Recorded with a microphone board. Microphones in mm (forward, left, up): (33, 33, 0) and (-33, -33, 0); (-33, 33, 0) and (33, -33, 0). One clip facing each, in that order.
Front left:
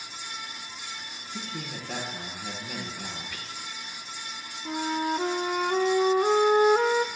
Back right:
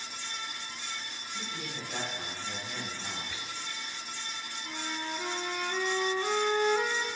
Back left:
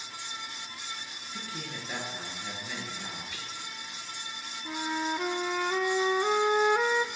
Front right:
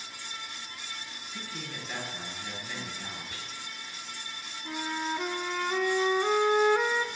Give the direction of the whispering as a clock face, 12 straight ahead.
2 o'clock.